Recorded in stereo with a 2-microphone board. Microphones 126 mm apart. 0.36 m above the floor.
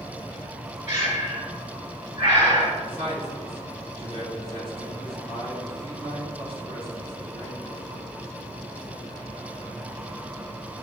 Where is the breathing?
50° right (ahead or behind), 2.5 m.